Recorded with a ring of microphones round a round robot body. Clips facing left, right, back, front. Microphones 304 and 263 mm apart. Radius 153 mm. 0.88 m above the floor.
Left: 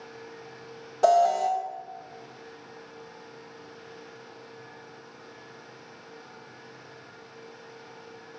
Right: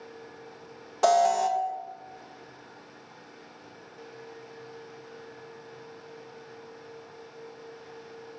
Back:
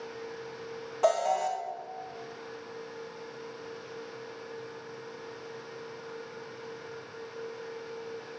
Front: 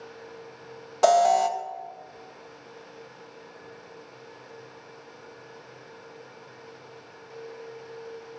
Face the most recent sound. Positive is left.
turn(degrees=-20)